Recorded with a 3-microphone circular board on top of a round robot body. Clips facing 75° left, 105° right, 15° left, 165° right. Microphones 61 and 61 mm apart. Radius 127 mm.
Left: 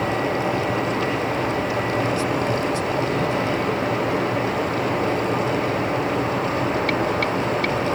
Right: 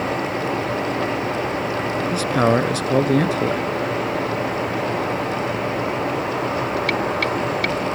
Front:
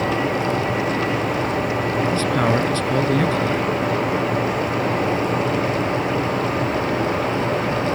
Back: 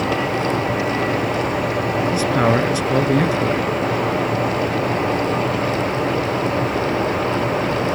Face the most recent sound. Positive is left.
turn(degrees=-85)